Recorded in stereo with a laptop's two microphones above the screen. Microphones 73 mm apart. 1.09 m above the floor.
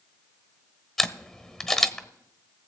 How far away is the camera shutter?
About 1.1 m.